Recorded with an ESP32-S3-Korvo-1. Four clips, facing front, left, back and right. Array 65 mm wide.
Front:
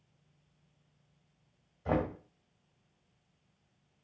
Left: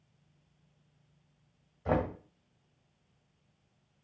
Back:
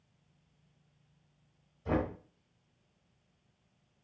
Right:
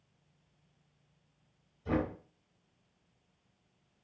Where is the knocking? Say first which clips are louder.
Left 2 dB, front 1 dB; 65° left, 1.6 m.